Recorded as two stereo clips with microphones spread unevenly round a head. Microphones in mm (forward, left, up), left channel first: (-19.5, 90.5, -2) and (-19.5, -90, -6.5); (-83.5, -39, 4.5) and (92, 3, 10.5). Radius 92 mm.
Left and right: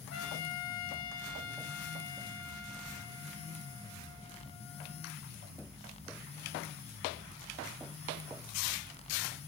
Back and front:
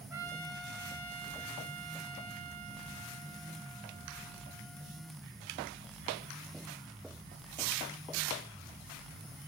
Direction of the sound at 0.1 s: 90° left.